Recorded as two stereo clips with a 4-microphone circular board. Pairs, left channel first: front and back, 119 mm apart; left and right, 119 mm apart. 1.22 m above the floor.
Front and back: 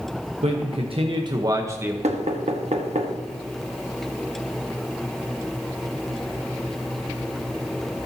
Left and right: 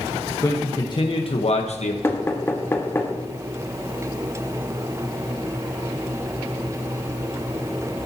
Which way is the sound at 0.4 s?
155° left.